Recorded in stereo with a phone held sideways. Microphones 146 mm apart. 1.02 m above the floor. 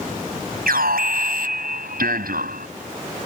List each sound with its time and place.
0.7 s an alarm: 90° right